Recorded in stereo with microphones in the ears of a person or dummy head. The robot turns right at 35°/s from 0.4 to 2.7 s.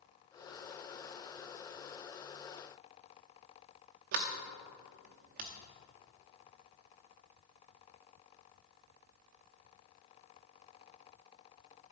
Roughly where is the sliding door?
Right.